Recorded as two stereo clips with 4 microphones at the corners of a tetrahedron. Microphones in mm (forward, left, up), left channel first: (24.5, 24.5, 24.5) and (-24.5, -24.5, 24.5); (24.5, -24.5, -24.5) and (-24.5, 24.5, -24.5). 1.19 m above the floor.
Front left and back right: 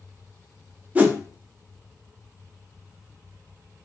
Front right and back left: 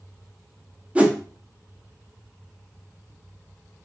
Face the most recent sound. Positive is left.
turn(degrees=-175)